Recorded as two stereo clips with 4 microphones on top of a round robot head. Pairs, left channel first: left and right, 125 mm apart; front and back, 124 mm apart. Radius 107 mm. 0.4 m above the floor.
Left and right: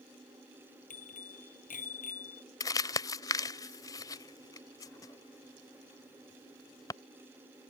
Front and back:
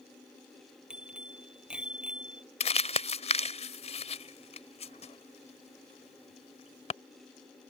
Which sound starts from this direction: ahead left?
Crumpling, at 2.6 s.